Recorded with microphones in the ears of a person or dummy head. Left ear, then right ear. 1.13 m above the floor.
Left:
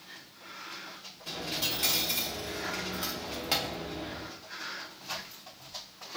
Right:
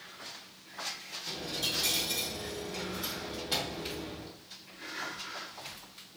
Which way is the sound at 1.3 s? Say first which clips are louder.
Left 2 dB; 30° left (ahead or behind).